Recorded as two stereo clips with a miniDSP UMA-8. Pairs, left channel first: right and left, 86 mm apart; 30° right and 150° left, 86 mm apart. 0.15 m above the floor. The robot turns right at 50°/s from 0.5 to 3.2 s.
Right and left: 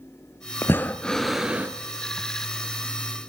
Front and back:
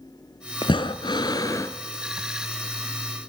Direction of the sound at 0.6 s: 35° right.